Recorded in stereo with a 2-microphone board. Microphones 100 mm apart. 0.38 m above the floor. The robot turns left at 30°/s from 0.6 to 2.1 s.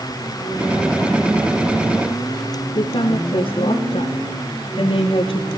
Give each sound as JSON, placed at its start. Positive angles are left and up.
{"t": 2.8, "sound": "a woman speaking", "side_deg": 60, "distance_m": 4.5}